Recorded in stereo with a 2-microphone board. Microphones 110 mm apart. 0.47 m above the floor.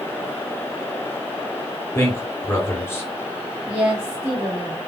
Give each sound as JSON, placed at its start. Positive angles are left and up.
{"t": 1.9, "sound": "a man speaking", "side_deg": 25, "distance_m": 1.4}
{"t": 3.6, "sound": "a woman speaking", "side_deg": -10, "distance_m": 1.6}